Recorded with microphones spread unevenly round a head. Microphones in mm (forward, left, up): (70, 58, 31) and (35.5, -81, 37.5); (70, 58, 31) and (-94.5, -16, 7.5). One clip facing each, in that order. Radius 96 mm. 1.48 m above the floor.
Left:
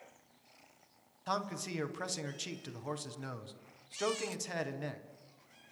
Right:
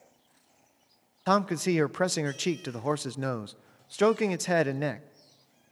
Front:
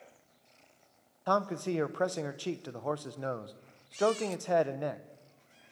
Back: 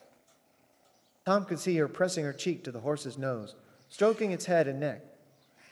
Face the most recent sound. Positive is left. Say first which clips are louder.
# right 13 dB, back 3 dB
turn(degrees=-85)